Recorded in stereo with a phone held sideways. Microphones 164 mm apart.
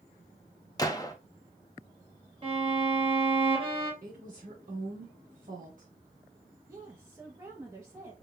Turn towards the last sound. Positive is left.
turn(degrees=-20)  # may be behind; listen again after turning